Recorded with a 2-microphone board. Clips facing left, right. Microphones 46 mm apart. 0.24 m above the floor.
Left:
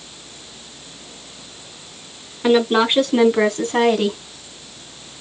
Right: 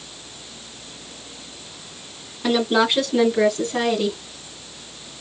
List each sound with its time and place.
2.4 s a woman speaking: 30° left (ahead or behind), 2.5 m; by 4.2 s 45° left (ahead or behind), 2.0 m